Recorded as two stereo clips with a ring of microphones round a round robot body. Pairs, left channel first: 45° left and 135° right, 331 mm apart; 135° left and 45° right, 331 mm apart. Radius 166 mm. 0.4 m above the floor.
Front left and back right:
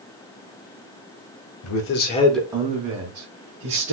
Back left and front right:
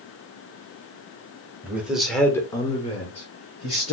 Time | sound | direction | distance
1.6 | a man speaking | 35° left | 1.0 m